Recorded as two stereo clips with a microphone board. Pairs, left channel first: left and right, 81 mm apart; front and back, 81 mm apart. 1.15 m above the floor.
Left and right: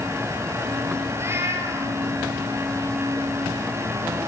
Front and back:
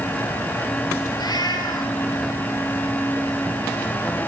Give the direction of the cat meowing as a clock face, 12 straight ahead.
1 o'clock.